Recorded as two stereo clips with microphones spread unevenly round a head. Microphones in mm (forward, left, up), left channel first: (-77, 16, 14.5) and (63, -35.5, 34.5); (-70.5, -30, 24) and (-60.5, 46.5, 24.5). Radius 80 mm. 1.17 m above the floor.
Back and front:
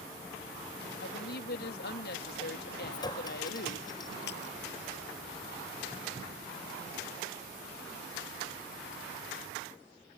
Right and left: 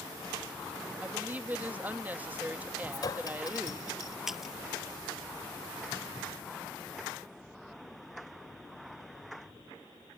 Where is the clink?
135° right.